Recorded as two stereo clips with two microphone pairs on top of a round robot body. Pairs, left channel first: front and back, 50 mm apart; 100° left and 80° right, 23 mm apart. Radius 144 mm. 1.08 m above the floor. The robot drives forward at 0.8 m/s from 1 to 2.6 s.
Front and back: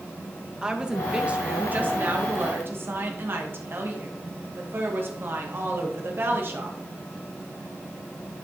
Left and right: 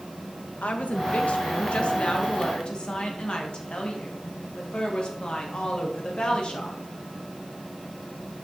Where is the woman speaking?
110° left, 1.3 m; by 6.8 s 145° left, 2 m.